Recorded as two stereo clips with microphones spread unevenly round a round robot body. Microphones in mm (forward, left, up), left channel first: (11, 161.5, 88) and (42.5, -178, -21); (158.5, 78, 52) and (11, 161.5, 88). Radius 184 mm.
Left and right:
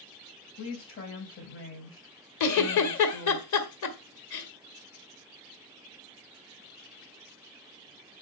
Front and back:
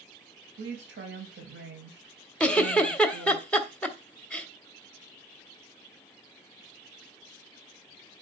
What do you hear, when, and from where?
0.6 s a woman speaking: 155° left, 3 m
2.4 s a giggle: 50° left, 1.6 m